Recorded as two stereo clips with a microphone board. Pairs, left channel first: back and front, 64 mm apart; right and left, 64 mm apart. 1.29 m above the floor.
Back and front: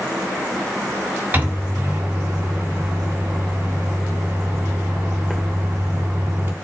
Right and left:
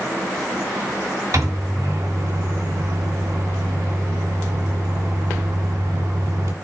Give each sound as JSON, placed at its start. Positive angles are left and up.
{"t": 1.3, "sound": "a microwave", "azimuth_deg": 65, "distance_m": 2.5}